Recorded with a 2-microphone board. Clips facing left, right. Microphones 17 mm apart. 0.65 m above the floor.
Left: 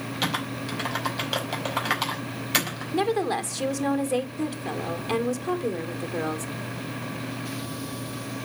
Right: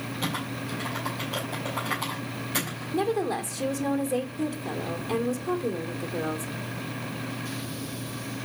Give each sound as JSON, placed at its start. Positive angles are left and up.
{"t": 0.2, "sound": "typing on a keyboard", "side_deg": 70, "distance_m": 5.0}
{"t": 2.9, "sound": "a woman speaking", "side_deg": 35, "distance_m": 1.9}